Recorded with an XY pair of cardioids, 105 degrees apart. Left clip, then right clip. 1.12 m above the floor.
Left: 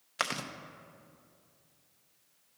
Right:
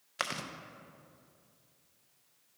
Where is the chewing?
10° left, 0.6 m.